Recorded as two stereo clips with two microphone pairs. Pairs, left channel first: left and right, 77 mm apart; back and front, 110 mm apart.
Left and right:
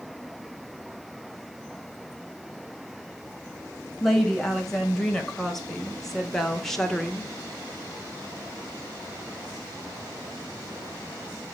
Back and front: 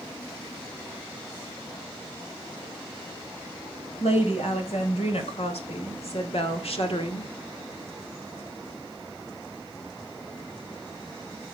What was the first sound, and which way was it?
A woman speaking, straight behind.